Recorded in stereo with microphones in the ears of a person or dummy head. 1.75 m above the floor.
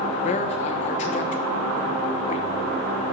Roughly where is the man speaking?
Left.